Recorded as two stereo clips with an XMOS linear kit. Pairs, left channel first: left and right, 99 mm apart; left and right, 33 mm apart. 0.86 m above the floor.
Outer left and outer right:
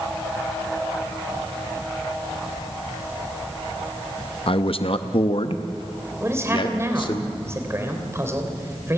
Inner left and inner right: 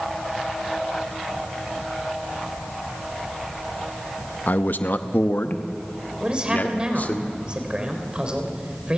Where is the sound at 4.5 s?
55° left (ahead or behind), 0.7 m; by 7.2 s 50° left (ahead or behind), 2.0 m.